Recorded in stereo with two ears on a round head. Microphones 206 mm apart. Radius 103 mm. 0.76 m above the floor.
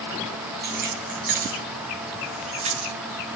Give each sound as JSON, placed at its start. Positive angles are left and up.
{"t": 0.6, "sound": "keys jangling", "side_deg": -45, "distance_m": 5.0}